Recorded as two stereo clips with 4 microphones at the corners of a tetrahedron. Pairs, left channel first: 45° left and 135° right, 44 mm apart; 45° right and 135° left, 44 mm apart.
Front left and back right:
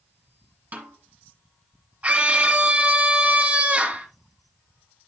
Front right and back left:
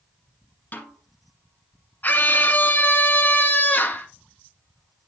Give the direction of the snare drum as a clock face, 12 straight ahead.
3 o'clock.